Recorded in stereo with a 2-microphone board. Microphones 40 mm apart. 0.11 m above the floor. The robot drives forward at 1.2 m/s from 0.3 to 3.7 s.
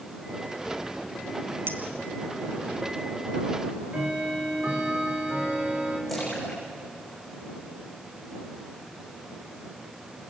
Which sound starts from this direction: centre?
A splash, at 6.1 s.